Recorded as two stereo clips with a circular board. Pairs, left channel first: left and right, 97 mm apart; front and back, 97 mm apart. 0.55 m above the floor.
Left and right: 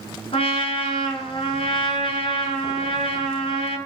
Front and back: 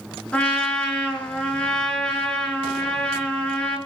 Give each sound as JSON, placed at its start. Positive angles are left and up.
{"t": 0.3, "sound": "a trumpet", "azimuth_deg": 80, "distance_m": 6.5}